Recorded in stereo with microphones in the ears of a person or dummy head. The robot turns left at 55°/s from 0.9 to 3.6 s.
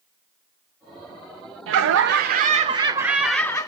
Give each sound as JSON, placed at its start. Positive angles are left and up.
{"t": 1.7, "sound": "laughter", "azimuth_deg": -95, "distance_m": 0.5}